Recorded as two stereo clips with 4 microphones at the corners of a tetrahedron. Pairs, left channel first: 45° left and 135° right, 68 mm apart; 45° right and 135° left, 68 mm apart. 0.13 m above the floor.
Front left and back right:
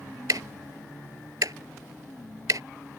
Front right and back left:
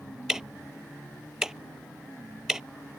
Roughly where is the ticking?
Behind right.